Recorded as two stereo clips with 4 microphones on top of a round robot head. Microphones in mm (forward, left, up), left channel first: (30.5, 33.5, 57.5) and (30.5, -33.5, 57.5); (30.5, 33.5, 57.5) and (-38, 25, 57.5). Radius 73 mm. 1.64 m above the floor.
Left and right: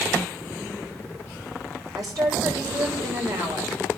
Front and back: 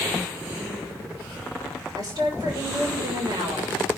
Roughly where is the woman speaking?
Behind right.